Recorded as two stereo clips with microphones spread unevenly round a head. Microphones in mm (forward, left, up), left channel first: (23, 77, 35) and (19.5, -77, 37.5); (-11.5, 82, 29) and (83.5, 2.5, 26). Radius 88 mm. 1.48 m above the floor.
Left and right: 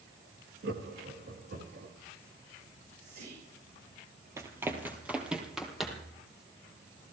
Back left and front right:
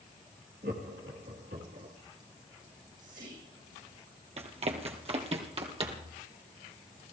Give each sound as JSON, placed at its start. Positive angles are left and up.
{"t": 0.6, "sound": "laughter", "azimuth_deg": -80, "distance_m": 2.5}
{"t": 2.7, "sound": "whispering", "azimuth_deg": -70, "distance_m": 7.0}
{"t": 4.4, "sound": "running footsteps", "azimuth_deg": -25, "distance_m": 2.0}